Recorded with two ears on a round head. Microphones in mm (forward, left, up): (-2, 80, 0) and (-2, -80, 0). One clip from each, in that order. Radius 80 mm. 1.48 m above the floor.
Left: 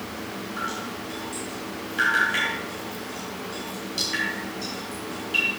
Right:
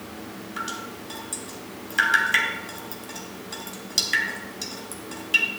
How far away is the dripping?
About 2.5 m.